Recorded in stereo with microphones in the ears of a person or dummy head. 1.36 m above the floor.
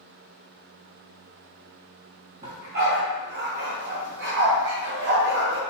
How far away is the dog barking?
About 2.5 m.